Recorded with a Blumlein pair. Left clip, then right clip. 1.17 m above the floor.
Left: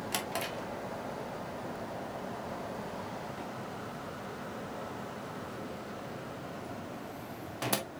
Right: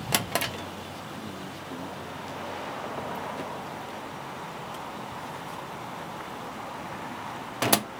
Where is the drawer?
25° right, 0.6 m.